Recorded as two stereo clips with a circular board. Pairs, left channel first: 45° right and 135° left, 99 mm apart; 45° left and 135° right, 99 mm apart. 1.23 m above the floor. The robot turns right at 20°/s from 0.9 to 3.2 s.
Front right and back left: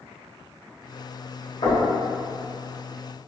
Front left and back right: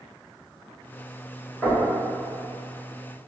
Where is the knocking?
45° right, 1.6 m; by 1.9 s 40° right, 1.6 m.